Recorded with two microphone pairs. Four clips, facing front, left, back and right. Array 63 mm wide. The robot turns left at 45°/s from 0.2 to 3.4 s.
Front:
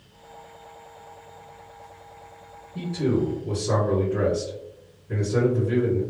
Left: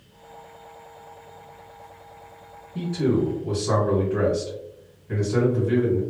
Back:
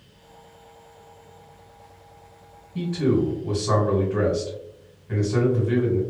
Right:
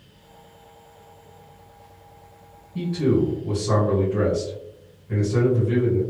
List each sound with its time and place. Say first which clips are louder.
2.8 s a man speaking: right 2 dB, back 2 dB; 170° right, 2.0 m; by 6.0 s 160° left, 2.0 m